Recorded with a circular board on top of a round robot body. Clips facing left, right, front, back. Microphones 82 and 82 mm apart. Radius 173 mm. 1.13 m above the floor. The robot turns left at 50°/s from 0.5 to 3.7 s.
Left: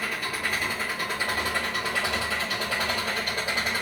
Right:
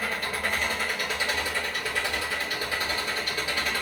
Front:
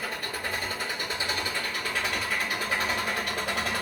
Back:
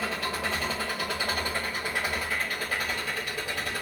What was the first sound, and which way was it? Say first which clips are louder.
An engine running: right 1 dB, back 3 dB; straight behind.